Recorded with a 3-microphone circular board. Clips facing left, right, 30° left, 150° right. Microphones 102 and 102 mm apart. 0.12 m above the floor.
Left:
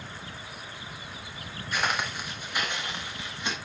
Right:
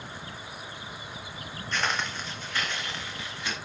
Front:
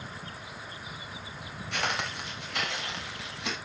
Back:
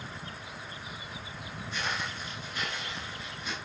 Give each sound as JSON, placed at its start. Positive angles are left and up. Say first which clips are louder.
{"t": 1.7, "sound": "footsteps", "louder": "left 1 dB, front 3 dB", "azimuth_deg": 10, "distance_m": 4.0}